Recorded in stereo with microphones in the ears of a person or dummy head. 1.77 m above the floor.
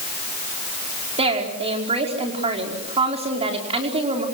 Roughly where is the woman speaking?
Right.